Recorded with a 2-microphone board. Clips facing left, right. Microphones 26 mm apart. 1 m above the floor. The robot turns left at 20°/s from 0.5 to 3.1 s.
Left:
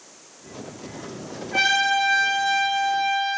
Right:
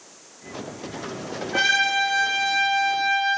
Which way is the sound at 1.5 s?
5° left.